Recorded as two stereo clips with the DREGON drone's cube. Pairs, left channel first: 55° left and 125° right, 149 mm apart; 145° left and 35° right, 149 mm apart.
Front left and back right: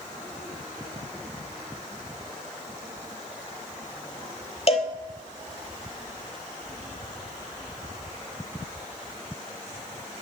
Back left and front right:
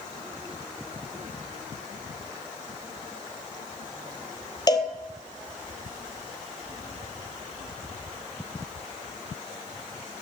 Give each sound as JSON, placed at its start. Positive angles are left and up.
{"t": 4.7, "sound": "a cowbell", "azimuth_deg": 90, "distance_m": 0.8}